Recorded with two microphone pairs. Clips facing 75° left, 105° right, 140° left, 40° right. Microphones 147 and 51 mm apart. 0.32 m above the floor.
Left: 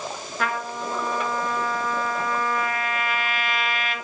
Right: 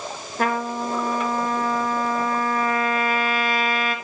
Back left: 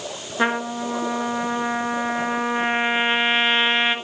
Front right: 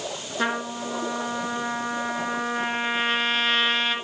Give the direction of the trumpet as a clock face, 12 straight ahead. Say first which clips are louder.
Right 5 dB, back left 5 dB; 5 o'clock.